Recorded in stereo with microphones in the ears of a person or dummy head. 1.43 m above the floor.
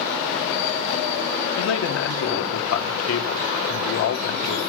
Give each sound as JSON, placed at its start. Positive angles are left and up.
{"t": 1.6, "sound": "a man speaking", "side_deg": 70, "distance_m": 1.5}